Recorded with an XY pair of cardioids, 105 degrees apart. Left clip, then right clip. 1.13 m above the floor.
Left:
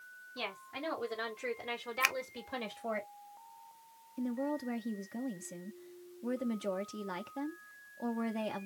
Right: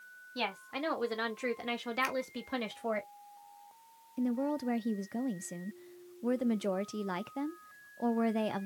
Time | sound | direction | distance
0.3 | a woman speaking | 60° right | 3 m
2.0 | a finger snap | 65° left | 0.5 m
4.2 | a woman speaking | 35° right | 0.5 m